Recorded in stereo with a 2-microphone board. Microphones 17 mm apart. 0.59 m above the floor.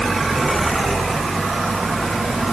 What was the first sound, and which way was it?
Only background noise.